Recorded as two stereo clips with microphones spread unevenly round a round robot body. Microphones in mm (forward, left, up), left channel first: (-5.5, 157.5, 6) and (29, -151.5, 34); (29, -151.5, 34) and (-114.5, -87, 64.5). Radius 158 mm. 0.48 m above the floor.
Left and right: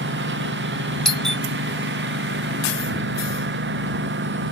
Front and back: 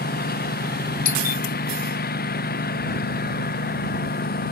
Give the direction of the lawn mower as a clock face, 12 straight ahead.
1 o'clock.